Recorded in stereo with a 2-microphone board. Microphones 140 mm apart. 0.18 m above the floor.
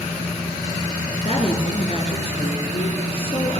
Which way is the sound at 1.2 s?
50° left (ahead or behind).